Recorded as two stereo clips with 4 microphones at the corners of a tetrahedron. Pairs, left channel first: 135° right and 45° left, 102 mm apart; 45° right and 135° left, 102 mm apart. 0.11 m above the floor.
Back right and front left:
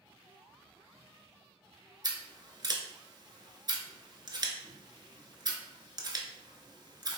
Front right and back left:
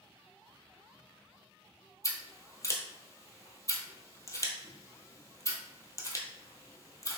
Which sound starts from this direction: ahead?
Scissors, at 2.0 s.